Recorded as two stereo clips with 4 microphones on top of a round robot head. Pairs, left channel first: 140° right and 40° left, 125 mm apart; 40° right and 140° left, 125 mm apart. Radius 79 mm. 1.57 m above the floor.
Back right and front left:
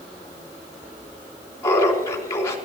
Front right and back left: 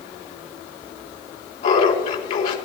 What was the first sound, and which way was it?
Laughter, 75° right.